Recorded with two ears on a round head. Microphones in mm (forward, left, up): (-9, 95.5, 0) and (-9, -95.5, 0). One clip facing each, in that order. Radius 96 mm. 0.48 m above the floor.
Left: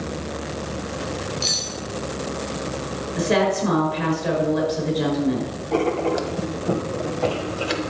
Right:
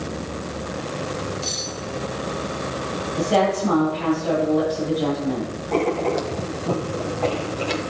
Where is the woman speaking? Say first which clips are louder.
Even; 70° left (ahead or behind), 7 m.